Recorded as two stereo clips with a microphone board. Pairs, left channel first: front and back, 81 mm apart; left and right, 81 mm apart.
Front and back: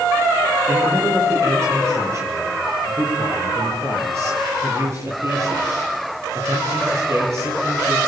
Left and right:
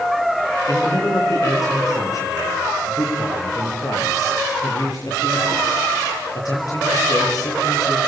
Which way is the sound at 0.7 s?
130° left.